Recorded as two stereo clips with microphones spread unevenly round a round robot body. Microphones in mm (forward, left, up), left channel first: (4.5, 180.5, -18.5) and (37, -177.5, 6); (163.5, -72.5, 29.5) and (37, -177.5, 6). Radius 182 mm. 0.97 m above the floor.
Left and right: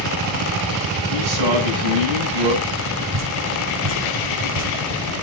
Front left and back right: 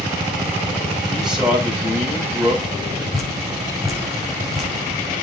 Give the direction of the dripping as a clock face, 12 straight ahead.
2 o'clock.